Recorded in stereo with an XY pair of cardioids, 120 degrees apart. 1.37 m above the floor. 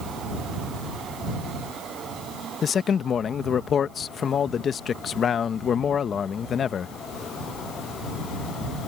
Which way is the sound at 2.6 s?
45° left.